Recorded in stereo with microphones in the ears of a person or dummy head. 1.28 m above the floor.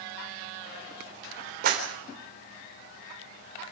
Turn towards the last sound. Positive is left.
turn(degrees=-45)  # may be behind; listen again after turning